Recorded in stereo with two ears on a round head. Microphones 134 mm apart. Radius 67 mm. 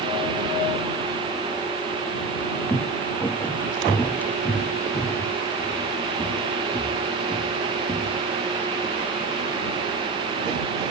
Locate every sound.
2.7 s footsteps: 10° left (ahead or behind); by 8.2 s 15° left (ahead or behind)